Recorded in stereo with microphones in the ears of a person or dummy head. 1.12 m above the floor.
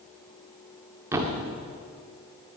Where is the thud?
15° right (ahead or behind), 1.4 m.